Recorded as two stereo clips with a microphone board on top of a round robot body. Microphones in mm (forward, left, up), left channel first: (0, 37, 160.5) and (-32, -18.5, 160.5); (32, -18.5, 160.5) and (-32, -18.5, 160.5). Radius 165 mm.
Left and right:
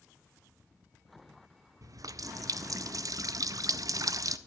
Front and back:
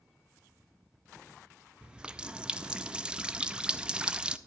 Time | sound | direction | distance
1.8 | a running tap | 105° right | 0.6 m